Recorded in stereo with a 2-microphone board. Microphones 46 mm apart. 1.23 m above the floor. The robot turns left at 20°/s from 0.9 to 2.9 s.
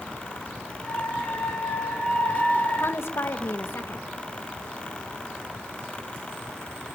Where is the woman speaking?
65° left (ahead or behind), 1.8 m.